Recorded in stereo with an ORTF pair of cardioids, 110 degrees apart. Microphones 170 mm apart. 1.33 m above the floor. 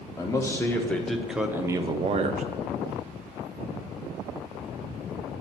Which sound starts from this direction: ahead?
A man speaking, at 0.2 s.